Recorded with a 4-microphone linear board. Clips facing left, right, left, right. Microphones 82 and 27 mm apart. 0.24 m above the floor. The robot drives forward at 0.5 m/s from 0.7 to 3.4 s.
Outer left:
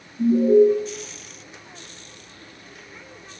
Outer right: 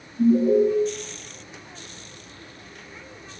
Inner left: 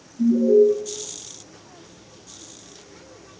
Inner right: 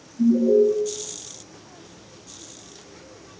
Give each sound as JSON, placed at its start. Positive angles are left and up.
{"t": 0.2, "sound": "an alarm", "side_deg": -15, "distance_m": 1.6}